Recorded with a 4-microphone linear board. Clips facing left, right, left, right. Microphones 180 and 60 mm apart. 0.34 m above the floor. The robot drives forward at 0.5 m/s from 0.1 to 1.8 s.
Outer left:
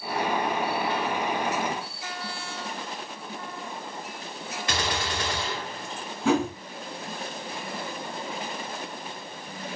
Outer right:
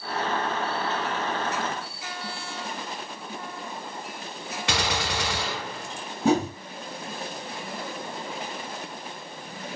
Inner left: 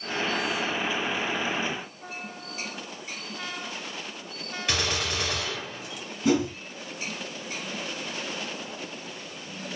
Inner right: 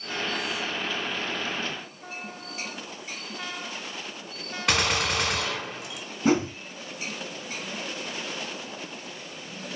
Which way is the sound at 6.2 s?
40° right (ahead or behind).